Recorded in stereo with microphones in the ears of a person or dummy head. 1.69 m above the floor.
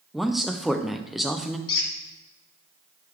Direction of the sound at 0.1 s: Centre (ahead or behind).